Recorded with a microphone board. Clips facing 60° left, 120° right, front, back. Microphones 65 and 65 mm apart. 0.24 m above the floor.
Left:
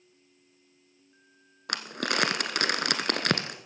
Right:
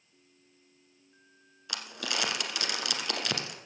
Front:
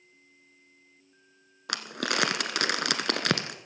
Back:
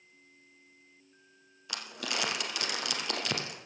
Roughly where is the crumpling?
Ahead left.